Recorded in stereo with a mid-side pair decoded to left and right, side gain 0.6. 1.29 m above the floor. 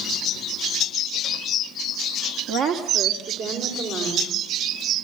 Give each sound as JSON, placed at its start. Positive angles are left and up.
{"t": 2.5, "sound": "a woman speaking", "azimuth_deg": -70, "distance_m": 2.5}